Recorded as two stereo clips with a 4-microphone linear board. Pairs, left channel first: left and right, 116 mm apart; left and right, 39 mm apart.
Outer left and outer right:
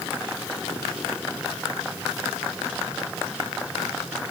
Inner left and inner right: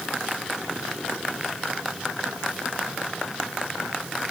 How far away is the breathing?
I don't hear breathing.